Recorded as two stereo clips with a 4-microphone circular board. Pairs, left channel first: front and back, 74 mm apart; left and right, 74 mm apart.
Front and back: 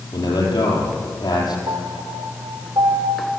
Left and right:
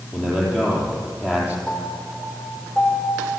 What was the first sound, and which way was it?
A man speaking, 10° right.